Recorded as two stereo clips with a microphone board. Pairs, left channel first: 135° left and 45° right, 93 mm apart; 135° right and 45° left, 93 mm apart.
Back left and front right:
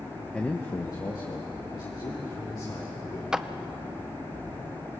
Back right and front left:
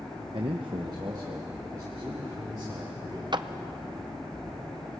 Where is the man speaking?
55° left, 0.8 m; by 3.2 s 105° left, 4.5 m.